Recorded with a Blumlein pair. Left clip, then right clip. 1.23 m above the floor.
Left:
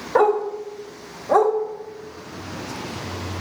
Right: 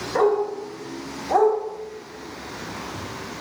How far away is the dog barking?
About 3 m.